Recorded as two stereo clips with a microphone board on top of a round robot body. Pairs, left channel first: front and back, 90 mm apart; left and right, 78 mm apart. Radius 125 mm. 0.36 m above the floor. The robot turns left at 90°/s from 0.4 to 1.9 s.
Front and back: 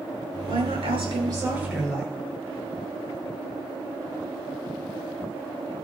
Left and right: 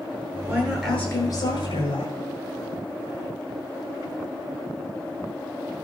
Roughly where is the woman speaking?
Behind right.